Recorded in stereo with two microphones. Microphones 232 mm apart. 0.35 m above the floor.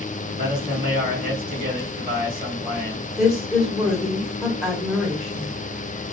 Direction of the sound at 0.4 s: 40° right (ahead or behind).